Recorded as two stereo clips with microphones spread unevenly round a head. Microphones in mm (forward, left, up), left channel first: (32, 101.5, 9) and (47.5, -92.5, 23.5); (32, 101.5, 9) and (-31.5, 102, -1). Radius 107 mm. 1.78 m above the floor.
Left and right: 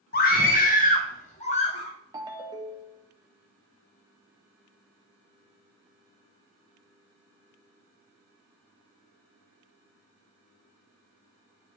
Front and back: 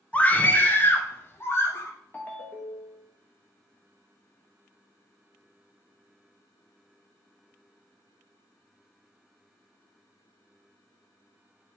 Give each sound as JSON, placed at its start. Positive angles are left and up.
{"t": 0.1, "sound": "a scream", "azimuth_deg": 60, "distance_m": 1.4}
{"t": 2.1, "sound": "a ringtone", "azimuth_deg": -35, "distance_m": 0.8}